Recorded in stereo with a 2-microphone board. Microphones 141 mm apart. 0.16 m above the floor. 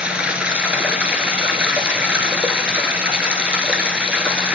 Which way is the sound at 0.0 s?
10° right (ahead or behind).